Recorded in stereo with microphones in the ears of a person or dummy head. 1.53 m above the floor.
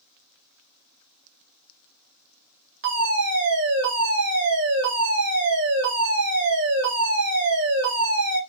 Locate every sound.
2.8 s a fire alarm: 55° right (ahead or behind), 1.8 m